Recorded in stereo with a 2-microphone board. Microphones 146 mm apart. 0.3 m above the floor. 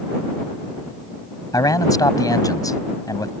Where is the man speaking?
25° left (ahead or behind).